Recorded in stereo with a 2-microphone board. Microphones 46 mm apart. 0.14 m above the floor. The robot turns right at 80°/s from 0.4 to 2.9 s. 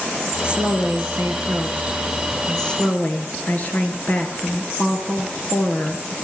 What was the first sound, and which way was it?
A woman speaking, 155° right.